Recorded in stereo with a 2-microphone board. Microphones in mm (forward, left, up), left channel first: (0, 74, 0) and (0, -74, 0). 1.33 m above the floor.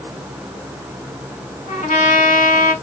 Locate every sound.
1.7 s a trumpet: 55° left (ahead or behind), 2.5 m